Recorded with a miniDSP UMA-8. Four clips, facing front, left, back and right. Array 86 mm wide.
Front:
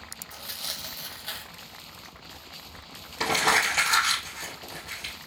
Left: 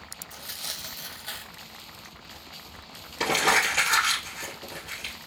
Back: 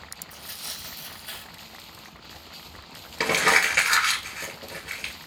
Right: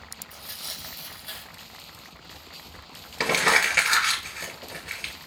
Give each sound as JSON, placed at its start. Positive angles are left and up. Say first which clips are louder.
{"t": 0.3, "sound": "tearing paper", "louder": "left 3 dB, front 4 dB", "azimuth_deg": 40, "distance_m": 0.8}
{"t": 3.2, "sound": "crumpling", "louder": "right 1 dB, back 2 dB", "azimuth_deg": -125, "distance_m": 2.0}